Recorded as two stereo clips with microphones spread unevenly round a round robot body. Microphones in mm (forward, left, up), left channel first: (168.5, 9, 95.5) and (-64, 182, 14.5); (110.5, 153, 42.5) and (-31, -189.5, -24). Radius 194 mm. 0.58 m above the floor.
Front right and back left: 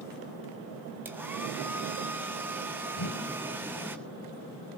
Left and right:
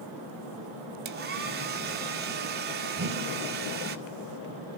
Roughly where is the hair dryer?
Behind right.